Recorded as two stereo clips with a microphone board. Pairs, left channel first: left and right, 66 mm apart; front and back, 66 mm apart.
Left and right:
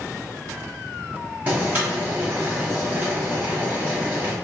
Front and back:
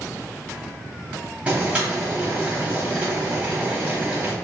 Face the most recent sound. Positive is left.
turn(degrees=-125)